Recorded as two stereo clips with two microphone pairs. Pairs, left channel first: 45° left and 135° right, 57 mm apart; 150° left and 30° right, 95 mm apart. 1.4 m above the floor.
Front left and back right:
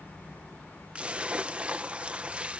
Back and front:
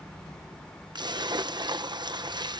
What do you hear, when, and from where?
0.9 s a splash: 65° right